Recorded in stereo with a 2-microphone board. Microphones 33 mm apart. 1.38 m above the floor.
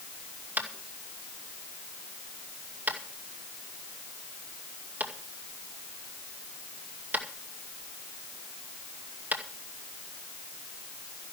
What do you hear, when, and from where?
0.6 s tapping: 50° right (ahead or behind), 2.5 m